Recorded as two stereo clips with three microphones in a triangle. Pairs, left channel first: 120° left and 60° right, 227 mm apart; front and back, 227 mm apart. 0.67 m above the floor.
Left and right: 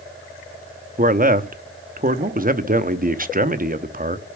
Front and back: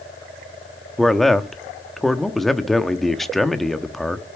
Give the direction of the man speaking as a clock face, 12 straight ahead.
3 o'clock.